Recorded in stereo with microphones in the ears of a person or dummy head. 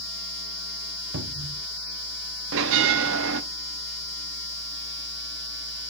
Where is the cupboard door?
60° right (ahead or behind), 1.3 m.